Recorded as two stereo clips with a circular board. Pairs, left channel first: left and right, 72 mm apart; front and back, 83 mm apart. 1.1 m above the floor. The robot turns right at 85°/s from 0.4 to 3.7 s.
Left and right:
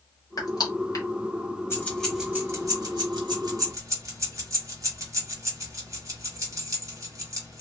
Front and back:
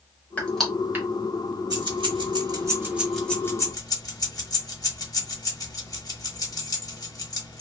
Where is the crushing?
70° left, 1.1 m; by 1.1 s 125° left, 1.1 m.